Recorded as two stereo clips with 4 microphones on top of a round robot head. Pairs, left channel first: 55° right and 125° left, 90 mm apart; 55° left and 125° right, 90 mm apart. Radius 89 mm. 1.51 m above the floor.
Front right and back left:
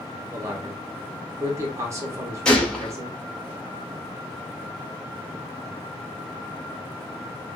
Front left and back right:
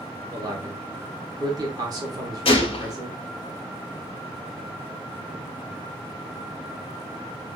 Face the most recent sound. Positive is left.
turn(degrees=30)